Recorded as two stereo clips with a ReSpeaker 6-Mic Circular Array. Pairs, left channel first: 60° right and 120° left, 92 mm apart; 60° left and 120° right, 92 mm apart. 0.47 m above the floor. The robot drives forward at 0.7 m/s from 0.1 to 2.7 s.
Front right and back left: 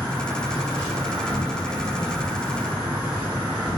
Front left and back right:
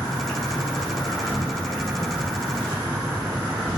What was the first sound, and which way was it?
An insect, 60° left.